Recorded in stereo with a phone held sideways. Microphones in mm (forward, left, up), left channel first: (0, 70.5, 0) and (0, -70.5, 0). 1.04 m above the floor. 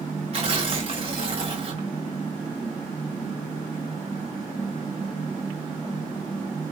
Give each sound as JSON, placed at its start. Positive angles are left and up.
{"t": 0.3, "sound": "tearing paper", "side_deg": -45, "distance_m": 1.0}